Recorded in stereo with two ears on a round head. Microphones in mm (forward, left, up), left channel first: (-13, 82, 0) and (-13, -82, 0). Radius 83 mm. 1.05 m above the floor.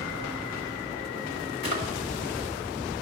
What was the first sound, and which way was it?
A drawer, 55° left (ahead or behind).